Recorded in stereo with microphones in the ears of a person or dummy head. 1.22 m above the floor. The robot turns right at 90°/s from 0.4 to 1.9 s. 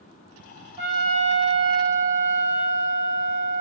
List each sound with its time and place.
0.8 s a trumpet: 140° right, 1.3 m; by 3.6 s 35° right, 1.3 m